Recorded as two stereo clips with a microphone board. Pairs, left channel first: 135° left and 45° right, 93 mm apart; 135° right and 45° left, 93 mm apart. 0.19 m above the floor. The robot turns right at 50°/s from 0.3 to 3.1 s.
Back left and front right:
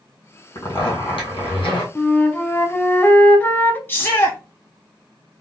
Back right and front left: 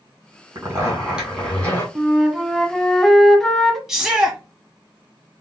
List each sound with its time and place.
0.6 s a zipper: 95° left, 2 m; by 1.9 s 160° left, 2 m
1.9 s a flute: 95° left, 0.5 m; by 3.8 s 150° left, 0.5 m
3.9 s a shout: 125° left, 1.2 m